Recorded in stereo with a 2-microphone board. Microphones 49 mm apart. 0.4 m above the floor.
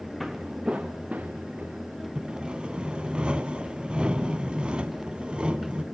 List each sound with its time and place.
0.2 s footsteps: centre (ahead or behind), 1.8 m; by 2.0 s 40° right (ahead or behind), 4 m
2.1 s sawing: 20° right (ahead or behind), 1.3 m